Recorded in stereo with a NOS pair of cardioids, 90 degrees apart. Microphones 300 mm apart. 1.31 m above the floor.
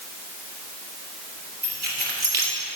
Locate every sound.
1.6 s keys jangling: 35° right, 3 m